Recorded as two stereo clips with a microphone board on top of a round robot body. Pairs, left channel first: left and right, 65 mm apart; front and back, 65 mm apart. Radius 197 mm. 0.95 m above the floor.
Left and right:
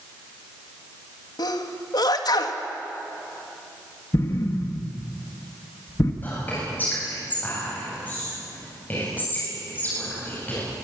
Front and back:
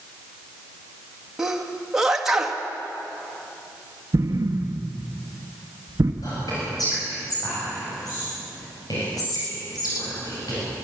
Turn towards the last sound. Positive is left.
turn(degrees=25)